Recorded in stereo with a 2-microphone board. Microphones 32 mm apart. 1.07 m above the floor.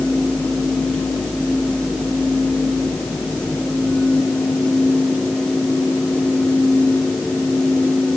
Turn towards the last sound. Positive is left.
No sound to turn to.